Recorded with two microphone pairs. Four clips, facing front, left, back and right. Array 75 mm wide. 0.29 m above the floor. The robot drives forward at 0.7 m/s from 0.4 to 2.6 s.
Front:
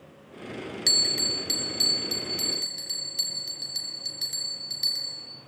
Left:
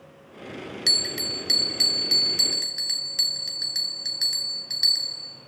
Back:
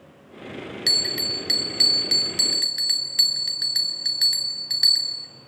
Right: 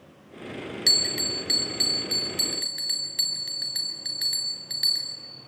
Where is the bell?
175° right, 1.3 m; by 5.3 s straight behind, 2 m.